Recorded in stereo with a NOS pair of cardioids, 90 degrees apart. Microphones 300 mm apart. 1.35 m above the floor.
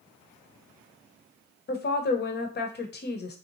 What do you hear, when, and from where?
1.7 s a woman speaking: 35° left, 0.8 m